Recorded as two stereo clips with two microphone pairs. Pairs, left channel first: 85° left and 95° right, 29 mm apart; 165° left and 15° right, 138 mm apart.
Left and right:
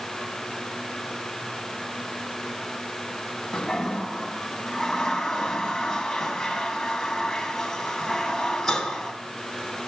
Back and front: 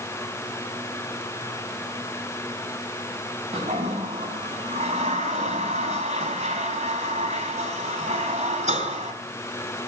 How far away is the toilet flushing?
About 2.5 m.